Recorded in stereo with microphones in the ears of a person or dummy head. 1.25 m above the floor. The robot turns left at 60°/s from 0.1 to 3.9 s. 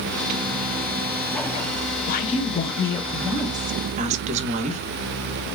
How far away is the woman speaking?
About 0.5 m.